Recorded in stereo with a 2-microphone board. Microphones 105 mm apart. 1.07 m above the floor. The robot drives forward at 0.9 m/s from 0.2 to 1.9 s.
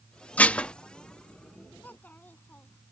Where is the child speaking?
15° left (ahead or behind).